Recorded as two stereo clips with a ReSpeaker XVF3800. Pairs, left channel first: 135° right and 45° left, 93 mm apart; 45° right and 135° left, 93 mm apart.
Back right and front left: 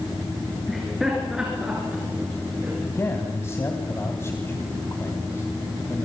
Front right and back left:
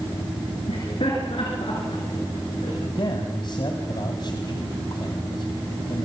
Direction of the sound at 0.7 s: 45° right.